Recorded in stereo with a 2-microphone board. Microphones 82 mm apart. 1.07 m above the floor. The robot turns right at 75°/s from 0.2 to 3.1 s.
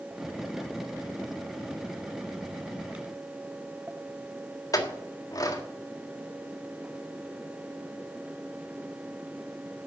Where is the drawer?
I don't hear a drawer.